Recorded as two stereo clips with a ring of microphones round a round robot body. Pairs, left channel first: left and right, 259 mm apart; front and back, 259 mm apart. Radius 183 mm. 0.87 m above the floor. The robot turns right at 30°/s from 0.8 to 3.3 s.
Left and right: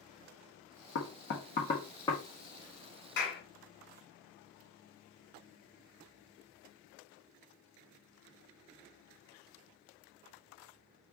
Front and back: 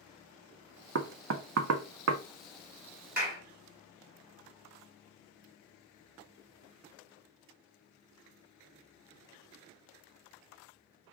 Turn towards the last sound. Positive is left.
turn(degrees=125)